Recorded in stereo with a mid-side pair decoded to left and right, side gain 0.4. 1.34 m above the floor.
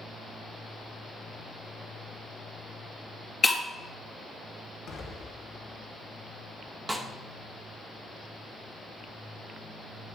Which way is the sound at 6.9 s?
20° right.